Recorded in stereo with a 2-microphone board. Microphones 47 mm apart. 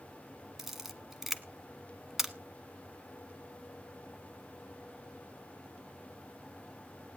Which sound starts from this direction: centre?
A camera shutter, at 0.6 s.